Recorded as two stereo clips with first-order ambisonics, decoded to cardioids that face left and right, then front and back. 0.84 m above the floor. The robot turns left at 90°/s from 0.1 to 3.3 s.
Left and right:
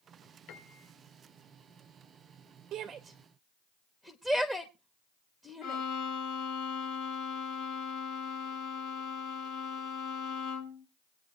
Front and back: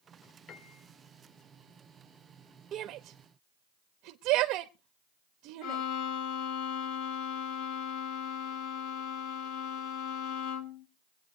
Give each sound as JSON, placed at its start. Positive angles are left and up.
{"t": 0.5, "sound": "a piano", "azimuth_deg": 55, "distance_m": 1.6}
{"t": 2.7, "sound": "a shout", "azimuth_deg": -135, "distance_m": 0.8}
{"t": 5.6, "sound": "a violin", "azimuth_deg": 40, "distance_m": 1.9}